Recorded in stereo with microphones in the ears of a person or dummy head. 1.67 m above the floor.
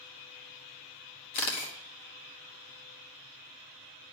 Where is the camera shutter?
35° left (ahead or behind), 1.2 m.